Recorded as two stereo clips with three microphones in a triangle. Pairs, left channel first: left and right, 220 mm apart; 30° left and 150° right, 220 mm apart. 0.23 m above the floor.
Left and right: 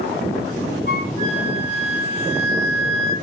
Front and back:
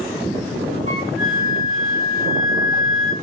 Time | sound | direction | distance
0.9 | a flute | 50° left | 3.5 m